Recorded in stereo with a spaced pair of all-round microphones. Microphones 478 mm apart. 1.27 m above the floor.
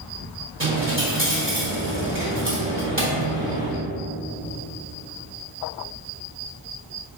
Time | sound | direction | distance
0.6 | a dropped coin | 25° right (ahead or behind) | 1.3 m